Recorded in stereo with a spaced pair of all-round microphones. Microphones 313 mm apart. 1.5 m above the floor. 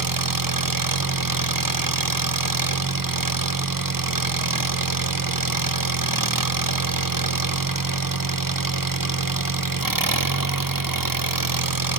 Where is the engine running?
75° right (ahead or behind), 0.9 m.